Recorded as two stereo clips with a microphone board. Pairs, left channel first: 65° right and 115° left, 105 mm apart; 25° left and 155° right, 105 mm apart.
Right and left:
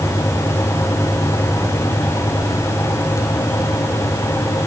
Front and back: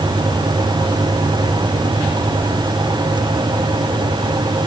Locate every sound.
Only background noise.